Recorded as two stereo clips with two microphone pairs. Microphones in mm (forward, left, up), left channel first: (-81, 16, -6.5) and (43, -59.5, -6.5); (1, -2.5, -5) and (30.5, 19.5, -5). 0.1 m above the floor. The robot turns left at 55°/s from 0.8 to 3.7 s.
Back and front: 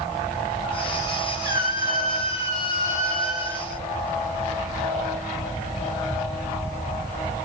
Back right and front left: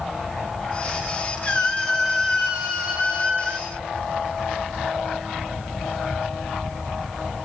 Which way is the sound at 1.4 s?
160° left.